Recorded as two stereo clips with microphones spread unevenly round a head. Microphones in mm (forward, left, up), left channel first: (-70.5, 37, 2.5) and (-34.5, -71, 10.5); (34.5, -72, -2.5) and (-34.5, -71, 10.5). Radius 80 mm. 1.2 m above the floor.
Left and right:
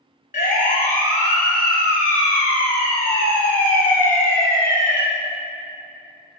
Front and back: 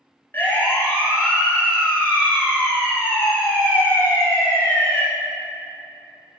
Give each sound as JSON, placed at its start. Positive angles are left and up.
{"t": 0.3, "sound": "a siren", "azimuth_deg": 75, "distance_m": 4.5}